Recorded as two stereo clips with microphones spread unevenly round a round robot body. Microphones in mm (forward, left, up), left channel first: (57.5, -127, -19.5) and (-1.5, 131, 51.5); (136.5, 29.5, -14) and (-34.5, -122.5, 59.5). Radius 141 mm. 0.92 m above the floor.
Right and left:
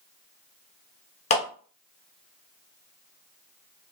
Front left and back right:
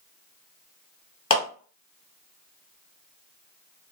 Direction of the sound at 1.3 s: 20° right.